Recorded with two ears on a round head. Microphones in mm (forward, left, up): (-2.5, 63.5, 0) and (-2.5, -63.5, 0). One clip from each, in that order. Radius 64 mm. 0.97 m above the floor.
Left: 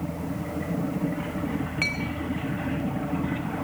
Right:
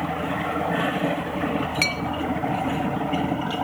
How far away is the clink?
About 0.8 m.